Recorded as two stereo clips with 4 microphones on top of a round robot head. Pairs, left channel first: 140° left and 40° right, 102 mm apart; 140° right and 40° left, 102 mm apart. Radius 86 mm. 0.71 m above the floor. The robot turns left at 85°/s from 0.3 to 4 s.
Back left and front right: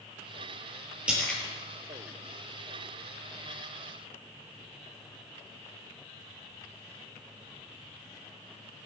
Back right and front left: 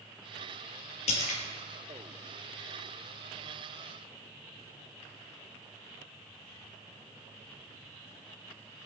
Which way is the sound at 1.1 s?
120° right.